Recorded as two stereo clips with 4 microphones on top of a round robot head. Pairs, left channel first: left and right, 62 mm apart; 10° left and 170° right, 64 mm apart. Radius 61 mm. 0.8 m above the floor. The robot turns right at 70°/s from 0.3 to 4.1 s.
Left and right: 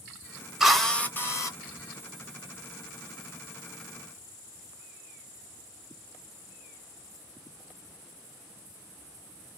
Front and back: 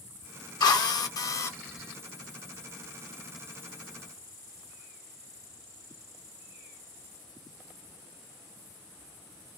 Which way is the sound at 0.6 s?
5° right.